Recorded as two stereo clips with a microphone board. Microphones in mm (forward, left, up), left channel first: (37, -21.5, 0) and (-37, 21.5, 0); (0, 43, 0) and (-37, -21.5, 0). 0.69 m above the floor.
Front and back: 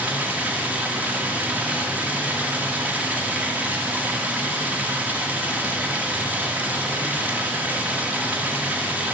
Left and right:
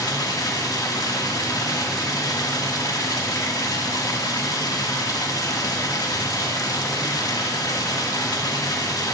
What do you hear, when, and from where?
0.0 s running water: 80° left, 1.0 m